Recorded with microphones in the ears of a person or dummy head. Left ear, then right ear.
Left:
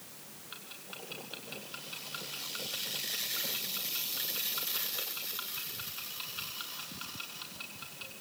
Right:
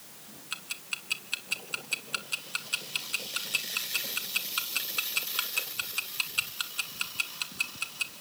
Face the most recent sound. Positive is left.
turn(degrees=-75)  # may be behind; listen again after turning